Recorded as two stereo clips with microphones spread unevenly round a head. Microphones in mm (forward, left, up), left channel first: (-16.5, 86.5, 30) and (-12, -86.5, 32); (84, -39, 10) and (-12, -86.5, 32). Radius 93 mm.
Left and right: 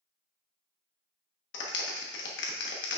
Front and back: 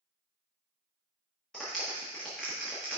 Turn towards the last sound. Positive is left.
turn(degrees=110)